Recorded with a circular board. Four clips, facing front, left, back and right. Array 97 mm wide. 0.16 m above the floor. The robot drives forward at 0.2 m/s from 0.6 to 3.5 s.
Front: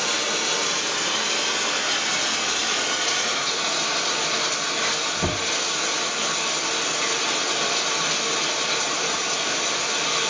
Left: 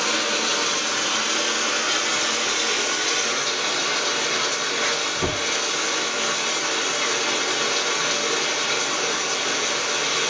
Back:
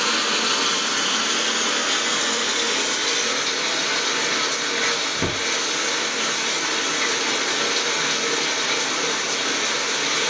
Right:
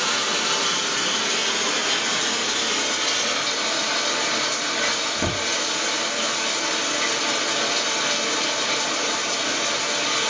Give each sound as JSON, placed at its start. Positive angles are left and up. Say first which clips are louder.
{"t": 0.0, "sound": "running water", "louder": "left 1 dB, back 3 dB", "azimuth_deg": -170, "distance_m": 1.2}